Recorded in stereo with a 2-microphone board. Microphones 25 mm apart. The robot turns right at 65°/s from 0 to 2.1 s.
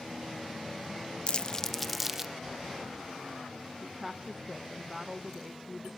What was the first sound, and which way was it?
Crumpling, 45° left (ahead or behind).